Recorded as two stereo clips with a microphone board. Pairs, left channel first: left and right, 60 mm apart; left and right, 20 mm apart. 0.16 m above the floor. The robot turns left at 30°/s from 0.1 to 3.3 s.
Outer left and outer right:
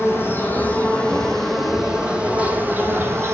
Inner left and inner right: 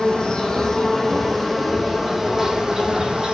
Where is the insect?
45° left, 1.2 m; by 3.4 s 50° right, 1.2 m.